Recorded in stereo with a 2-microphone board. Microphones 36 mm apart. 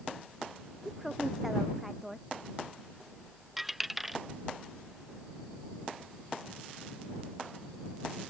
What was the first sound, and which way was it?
A woman speaking, 5° right (ahead or behind).